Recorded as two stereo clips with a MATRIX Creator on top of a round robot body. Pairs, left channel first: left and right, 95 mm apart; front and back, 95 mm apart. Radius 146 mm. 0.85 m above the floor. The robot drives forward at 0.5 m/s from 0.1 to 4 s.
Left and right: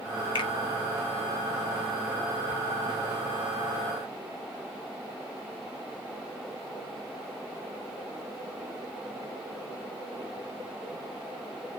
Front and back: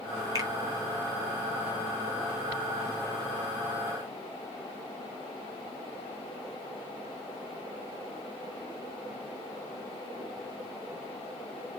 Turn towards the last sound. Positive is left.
turn(degrees=145)